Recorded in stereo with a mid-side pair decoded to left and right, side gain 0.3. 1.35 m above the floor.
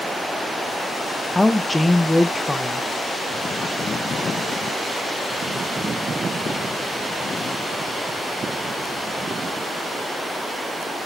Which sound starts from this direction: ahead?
A woman speaking, at 1.3 s.